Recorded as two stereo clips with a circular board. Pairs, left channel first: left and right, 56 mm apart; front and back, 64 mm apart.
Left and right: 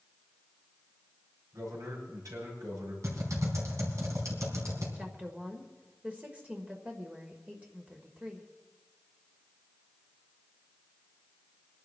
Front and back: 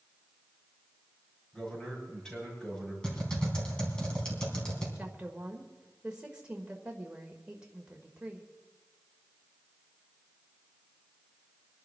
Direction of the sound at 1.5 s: 80° right.